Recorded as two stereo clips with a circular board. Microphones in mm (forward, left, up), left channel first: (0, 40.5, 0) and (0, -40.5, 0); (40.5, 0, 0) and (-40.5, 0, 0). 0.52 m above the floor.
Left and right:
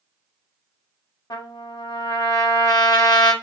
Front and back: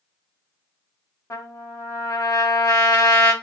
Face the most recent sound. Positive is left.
turn(degrees=55)